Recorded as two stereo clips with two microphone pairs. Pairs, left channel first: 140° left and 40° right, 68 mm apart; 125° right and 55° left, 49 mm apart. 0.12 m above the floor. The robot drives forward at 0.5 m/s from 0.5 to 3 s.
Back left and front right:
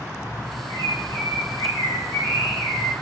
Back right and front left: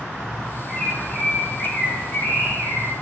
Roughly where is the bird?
Behind.